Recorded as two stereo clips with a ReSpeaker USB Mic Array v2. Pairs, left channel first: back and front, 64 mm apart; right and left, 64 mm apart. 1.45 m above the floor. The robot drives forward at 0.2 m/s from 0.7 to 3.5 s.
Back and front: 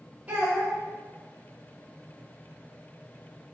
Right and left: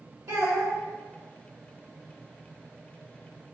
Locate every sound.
0.3 s a child speaking: 65° left, 1.5 m